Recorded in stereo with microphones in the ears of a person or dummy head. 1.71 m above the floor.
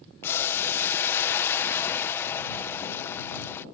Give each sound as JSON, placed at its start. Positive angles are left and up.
{"t": 0.2, "sound": "boiling", "side_deg": 10}